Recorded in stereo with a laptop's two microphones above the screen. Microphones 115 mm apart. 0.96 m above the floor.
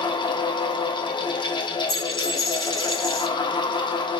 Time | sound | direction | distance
0.0 | a fan | 40° left (ahead or behind) | 0.7 m
1.9 | a dropped coin | 5° left (ahead or behind) | 1.4 m